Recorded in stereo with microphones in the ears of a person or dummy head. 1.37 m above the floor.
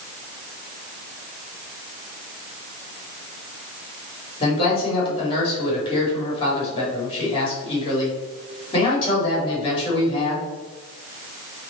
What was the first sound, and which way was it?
A man speaking, 30° left (ahead or behind).